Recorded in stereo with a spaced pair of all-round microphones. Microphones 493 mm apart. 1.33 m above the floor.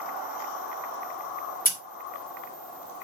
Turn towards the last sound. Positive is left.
turn(degrees=15)  # may be behind; listen again after turning